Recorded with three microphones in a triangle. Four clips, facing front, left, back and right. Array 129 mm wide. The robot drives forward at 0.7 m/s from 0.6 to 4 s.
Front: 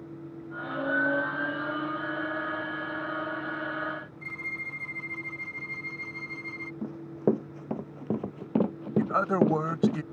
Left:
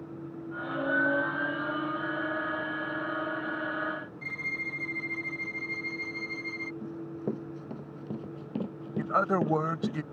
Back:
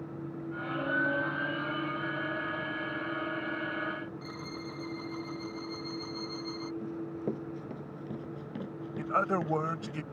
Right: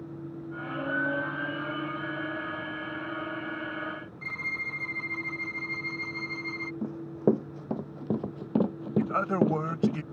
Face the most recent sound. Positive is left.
turn(degrees=60)